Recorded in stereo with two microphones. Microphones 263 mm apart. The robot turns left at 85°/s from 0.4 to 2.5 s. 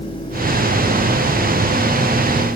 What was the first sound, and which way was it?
Only background noise.